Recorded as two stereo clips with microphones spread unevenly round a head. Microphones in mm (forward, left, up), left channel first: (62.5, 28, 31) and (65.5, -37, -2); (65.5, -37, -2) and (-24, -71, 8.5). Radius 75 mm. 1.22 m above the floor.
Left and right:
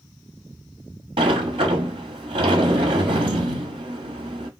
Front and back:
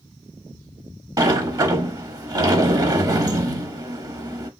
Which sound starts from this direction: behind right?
A sliding door, at 1.2 s.